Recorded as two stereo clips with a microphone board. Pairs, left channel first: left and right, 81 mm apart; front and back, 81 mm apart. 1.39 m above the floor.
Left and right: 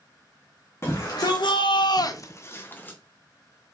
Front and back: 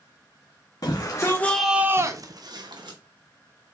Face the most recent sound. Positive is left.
turn(degrees=160)